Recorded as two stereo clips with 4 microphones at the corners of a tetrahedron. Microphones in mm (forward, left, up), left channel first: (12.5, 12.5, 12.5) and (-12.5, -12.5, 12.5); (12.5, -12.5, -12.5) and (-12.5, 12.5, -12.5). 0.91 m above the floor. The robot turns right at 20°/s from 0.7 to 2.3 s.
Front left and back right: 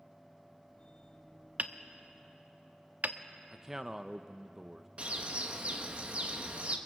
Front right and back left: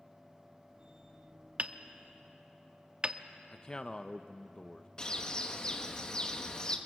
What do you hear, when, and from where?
1.6 s hammering: 175° right, 0.7 m; by 3.2 s 160° right, 0.7 m
3.5 s a man speaking: 75° right, 0.6 m
5.0 s a bird: 100° right, 1.4 m